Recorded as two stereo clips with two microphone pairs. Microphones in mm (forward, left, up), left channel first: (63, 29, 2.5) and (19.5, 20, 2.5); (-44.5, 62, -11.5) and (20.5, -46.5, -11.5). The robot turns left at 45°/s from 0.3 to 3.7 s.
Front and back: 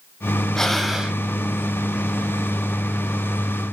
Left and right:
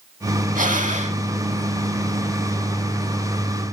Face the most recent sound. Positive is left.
turn(degrees=155)